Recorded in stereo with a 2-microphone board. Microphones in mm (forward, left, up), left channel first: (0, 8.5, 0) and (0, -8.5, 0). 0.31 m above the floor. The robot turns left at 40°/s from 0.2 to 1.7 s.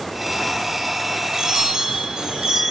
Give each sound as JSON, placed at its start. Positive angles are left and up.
{"t": 1.3, "sound": "a chime", "side_deg": -40, "distance_m": 2.5}